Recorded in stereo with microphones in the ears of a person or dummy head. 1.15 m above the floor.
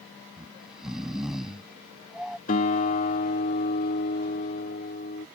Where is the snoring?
10° right (ahead or behind).